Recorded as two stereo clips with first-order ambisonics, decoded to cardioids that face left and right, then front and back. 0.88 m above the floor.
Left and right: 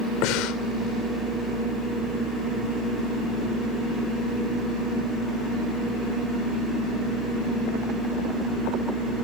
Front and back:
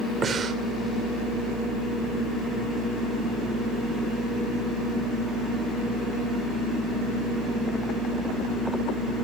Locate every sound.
0.2 s breathing: 115° left, 2.5 m